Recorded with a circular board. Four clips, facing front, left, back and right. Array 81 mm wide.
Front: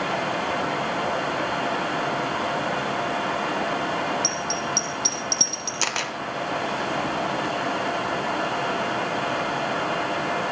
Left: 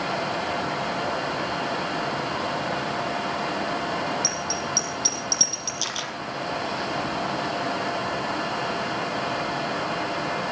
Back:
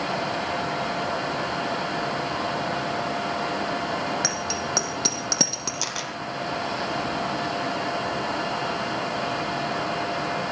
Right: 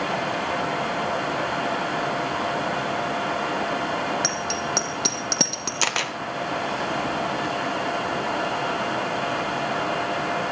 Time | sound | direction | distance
4.2 | a bicycle bell | 135° right | 5.5 m
5.8 | a camera shutter | 60° right | 2 m